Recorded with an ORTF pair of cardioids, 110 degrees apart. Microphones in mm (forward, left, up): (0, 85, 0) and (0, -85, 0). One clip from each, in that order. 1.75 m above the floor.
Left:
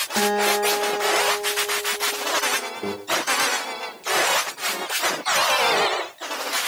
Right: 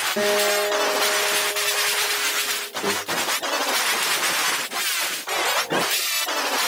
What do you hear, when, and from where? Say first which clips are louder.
0.2 s a guitar: left 2 dB; 30° left, 3.5 m
2.8 s a microwave: right 5 dB; 15° left, 3.5 m